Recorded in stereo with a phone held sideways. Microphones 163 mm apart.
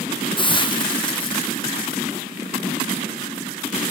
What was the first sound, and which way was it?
A hiss, 30° left (ahead or behind).